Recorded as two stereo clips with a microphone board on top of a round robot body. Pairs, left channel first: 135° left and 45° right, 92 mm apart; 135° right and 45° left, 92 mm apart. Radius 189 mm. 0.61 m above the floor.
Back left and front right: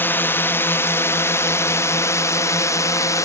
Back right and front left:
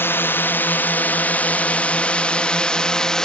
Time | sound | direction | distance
0.0 | a drone | straight behind | ?